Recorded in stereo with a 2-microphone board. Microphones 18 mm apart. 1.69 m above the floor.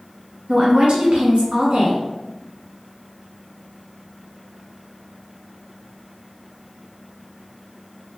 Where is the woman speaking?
85° right, 2.5 m.